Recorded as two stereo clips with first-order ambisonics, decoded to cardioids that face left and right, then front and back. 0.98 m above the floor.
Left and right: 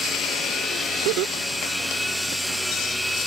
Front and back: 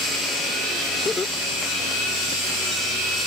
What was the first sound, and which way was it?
Laughter, 80° right.